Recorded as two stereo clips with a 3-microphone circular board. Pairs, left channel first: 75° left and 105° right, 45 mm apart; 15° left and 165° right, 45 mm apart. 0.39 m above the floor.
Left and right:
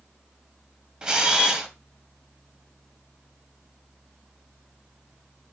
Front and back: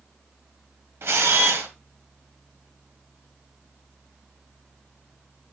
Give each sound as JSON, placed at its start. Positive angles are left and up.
{"t": 1.0, "sound": "a camera shutter", "azimuth_deg": -175, "distance_m": 1.9}